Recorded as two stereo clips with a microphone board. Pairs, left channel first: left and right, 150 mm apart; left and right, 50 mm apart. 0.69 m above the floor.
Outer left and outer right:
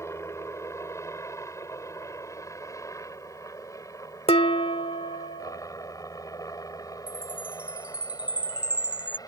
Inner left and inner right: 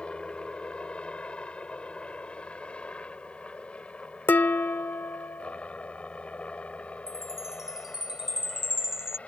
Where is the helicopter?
20° left (ahead or behind); by 9.3 s 25° left (ahead or behind).